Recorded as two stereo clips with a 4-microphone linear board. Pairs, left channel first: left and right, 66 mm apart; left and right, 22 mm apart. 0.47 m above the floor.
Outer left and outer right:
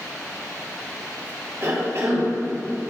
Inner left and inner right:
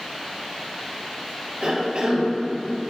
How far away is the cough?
About 2.5 m.